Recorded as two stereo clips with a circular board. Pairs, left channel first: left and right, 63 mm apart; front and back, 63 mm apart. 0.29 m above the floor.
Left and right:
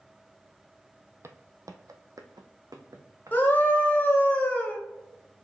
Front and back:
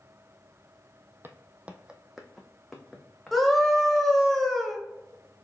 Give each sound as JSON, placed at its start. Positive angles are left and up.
{"t": 1.2, "sound": "footsteps", "azimuth_deg": -130, "distance_m": 0.6}
{"t": 3.3, "sound": "a scream", "azimuth_deg": 85, "distance_m": 1.1}